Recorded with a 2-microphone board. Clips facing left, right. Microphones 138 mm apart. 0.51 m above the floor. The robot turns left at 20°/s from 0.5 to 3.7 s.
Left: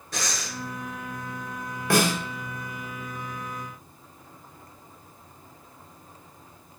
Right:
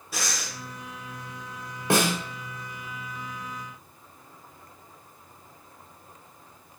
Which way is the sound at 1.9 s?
25° right (ahead or behind).